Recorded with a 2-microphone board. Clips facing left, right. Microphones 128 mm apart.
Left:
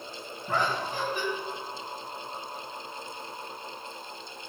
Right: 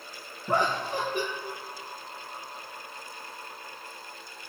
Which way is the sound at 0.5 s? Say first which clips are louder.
Right 2 dB; 25° right (ahead or behind).